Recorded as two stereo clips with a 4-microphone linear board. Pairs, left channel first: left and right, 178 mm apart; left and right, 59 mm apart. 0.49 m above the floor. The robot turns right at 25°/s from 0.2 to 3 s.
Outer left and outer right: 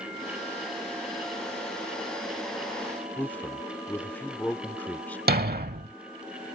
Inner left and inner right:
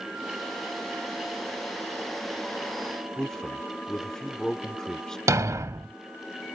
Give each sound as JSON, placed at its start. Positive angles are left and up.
{"t": 3.2, "sound": "a man speaking", "side_deg": 10}
{"t": 5.3, "sound": "a thud", "side_deg": -60}